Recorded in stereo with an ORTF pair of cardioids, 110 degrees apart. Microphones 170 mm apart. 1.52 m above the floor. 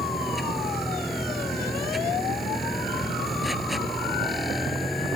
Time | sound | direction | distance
0.0 | a machine running | straight ahead | ?